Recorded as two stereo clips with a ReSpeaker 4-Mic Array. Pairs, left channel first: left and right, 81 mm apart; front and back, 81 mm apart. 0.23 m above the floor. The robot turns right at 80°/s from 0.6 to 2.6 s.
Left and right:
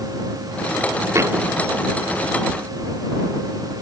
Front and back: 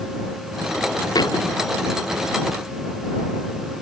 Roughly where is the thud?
Ahead right.